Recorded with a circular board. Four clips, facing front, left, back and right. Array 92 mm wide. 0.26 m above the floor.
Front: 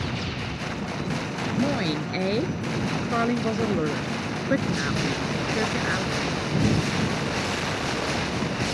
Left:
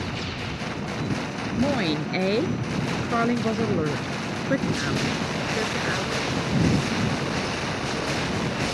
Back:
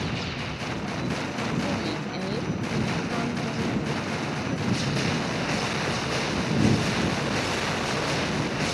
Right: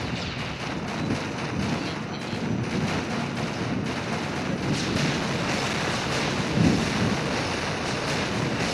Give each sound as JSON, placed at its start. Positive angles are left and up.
{"t": 1.6, "sound": "a woman speaking", "azimuth_deg": 70}